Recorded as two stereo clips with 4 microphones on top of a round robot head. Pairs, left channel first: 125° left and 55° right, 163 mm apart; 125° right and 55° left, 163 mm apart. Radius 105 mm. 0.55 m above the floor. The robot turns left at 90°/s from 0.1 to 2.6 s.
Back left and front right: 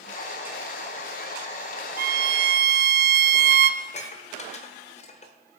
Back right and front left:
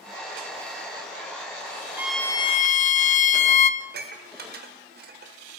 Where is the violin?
20° right, 0.6 m; by 3.7 s 80° right, 0.6 m.